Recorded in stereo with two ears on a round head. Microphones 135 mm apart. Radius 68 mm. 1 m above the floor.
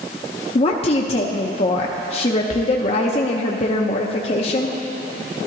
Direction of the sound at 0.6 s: 40° left (ahead or behind).